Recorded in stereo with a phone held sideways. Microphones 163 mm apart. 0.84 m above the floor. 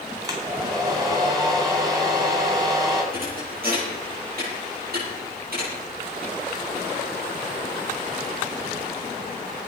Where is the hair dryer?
25° right (ahead or behind), 4 m.